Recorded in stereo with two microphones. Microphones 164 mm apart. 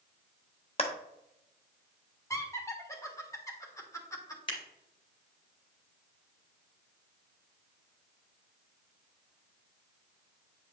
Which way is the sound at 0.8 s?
40° left (ahead or behind).